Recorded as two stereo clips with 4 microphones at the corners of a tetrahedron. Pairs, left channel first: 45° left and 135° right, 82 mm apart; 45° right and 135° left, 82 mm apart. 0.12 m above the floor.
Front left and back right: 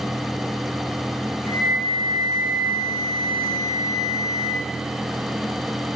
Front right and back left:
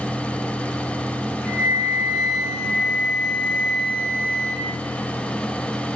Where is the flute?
15° left, 3.5 m.